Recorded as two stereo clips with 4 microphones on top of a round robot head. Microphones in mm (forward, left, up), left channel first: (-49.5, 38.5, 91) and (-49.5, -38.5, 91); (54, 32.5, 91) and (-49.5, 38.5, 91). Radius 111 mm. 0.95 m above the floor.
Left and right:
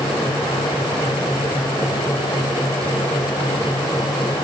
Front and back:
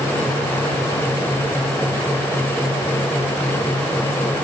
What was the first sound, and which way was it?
Only background noise.